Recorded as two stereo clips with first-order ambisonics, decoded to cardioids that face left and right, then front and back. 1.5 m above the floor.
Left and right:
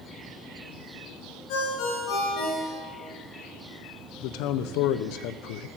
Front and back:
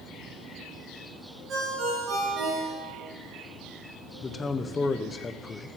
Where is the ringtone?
120° left, 5 m.